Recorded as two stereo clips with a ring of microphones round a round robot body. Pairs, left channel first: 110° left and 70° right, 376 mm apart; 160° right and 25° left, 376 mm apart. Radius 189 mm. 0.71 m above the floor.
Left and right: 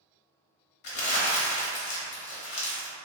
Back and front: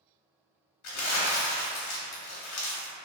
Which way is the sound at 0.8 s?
150° left.